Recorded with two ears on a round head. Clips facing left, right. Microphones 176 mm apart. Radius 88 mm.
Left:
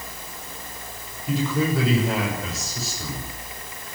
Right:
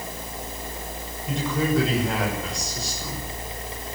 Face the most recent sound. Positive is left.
turn(degrees=5)  # may be behind; listen again after turning